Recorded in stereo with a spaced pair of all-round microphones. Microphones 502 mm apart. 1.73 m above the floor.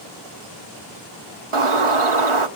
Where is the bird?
75° right (ahead or behind), 1.0 m.